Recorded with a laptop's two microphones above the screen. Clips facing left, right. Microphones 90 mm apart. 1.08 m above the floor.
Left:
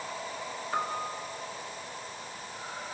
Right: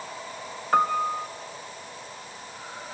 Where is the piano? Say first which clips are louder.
Right 11 dB; 60° right (ahead or behind), 1.1 m.